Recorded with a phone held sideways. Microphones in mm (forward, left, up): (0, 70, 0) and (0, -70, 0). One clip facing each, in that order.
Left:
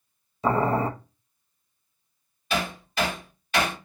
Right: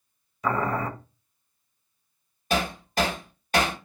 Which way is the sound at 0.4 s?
30° left (ahead or behind).